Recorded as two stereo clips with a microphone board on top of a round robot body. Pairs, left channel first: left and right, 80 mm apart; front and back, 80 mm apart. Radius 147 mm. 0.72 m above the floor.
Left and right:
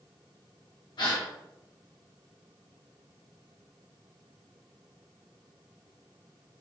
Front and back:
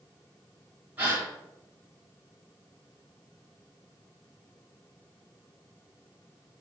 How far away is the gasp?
About 1.5 m.